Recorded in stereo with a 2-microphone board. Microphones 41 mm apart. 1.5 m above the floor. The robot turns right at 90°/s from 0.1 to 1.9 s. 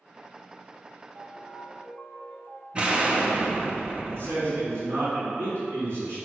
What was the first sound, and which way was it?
A ringtone, 75° right.